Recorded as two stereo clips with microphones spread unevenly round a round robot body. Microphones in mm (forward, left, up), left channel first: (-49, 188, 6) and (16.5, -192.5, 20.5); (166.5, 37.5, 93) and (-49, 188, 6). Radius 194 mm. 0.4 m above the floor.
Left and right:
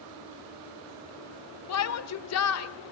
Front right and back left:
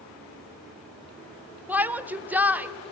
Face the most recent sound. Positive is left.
turn(degrees=85)